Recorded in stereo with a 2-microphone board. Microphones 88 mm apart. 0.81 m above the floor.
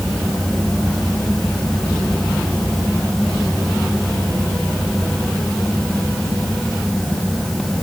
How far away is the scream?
I don't hear a scream.